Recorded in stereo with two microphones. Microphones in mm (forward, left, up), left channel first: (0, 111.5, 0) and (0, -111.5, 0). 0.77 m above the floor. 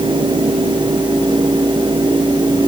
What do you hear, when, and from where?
Only background noise.